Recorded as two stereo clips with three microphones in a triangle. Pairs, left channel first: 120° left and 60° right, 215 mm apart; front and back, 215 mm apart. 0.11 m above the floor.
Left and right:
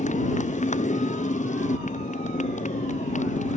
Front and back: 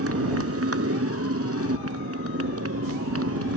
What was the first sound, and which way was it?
A motorcycle, straight behind.